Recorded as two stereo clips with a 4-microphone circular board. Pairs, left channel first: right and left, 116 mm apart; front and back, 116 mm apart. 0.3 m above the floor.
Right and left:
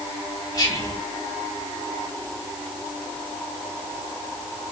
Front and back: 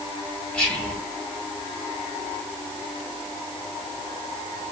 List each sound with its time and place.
0.5 s whispering: 75° right, 1.3 m